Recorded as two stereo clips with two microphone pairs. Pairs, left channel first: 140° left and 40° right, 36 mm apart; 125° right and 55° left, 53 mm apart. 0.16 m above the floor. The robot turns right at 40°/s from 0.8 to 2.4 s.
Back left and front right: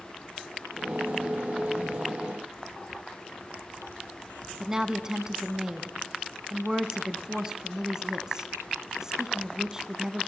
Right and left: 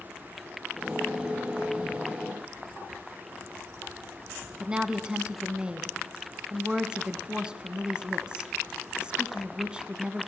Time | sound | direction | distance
4.6 | a woman speaking | 5° left | 1.2 m